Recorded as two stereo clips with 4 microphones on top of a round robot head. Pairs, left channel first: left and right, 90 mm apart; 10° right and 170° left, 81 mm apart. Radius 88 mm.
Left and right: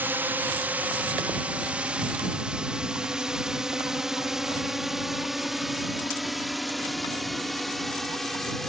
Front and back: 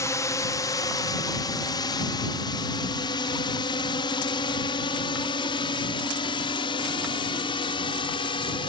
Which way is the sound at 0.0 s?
30° right.